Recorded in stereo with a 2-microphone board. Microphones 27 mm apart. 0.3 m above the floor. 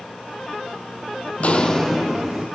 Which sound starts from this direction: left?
Footsteps, at 1.4 s.